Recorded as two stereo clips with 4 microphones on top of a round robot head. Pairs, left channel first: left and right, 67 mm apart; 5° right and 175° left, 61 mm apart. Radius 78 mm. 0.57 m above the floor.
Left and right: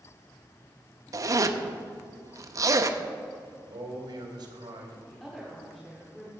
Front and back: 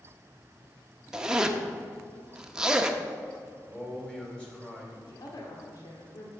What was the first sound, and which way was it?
A zipper, 110° right.